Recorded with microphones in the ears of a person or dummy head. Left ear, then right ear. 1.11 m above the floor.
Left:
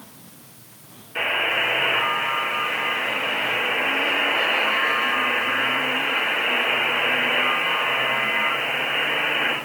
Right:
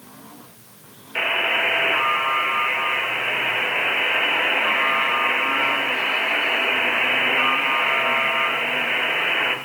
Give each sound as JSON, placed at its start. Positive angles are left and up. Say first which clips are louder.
{"t": 1.1, "sound": "a buzzer", "louder": "right 1 dB", "side_deg": -40, "distance_m": 1.1}